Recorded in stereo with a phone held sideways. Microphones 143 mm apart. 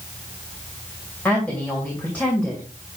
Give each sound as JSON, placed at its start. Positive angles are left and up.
{"t": 1.2, "sound": "a woman speaking", "side_deg": 10, "distance_m": 2.5}